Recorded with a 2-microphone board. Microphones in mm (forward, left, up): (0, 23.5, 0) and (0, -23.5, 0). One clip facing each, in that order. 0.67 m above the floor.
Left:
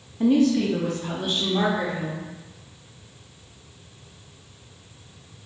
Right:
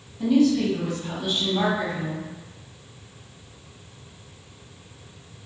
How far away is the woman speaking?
About 0.6 m.